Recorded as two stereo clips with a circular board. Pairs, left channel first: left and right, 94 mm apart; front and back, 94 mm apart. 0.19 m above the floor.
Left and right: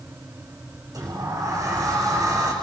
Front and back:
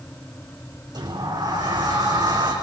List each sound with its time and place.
0.9 s a sliding door: 140° right, 7.5 m